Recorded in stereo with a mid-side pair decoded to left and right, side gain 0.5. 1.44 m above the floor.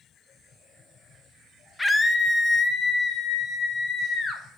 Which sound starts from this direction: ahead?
A scream, at 1.8 s.